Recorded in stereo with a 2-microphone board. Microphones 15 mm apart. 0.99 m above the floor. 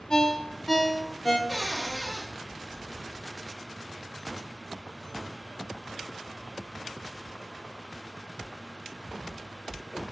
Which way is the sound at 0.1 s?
50° left (ahead or behind).